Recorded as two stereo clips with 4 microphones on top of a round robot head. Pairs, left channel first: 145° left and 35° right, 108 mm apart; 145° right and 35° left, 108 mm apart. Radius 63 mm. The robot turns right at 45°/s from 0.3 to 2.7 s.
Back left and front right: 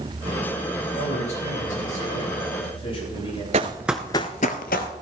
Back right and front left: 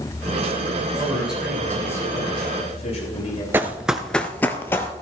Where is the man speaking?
105° left, 7.5 m; by 3.4 s 175° right, 7.5 m.